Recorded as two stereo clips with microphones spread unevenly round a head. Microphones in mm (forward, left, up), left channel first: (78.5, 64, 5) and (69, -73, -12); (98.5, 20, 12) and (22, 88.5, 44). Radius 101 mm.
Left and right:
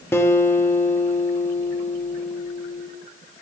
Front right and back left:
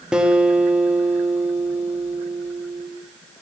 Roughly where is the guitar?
Left.